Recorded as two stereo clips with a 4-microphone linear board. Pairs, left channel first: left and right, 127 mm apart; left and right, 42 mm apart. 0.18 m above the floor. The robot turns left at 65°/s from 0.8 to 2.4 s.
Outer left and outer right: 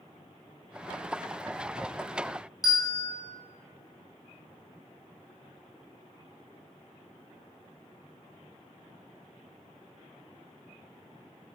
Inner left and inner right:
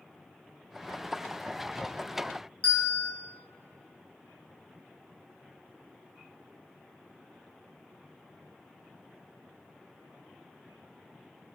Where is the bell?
30° left (ahead or behind), 1.4 m.